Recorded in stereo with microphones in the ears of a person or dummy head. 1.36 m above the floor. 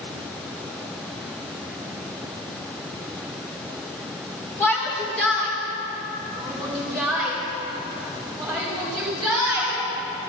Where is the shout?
10° left (ahead or behind), 2 m; by 9.8 s 5° right (ahead or behind), 8.5 m.